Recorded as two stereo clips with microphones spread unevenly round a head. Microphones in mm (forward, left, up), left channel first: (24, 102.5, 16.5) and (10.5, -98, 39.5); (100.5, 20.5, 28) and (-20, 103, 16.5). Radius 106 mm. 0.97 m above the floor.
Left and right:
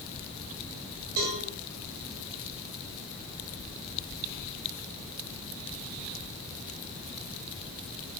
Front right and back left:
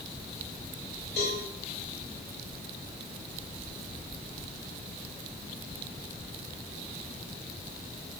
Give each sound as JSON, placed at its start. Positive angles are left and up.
{"t": 1.2, "sound": "a cowbell", "azimuth_deg": -75, "distance_m": 2.5}